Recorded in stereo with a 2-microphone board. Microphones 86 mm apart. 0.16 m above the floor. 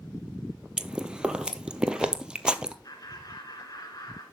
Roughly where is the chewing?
Centre.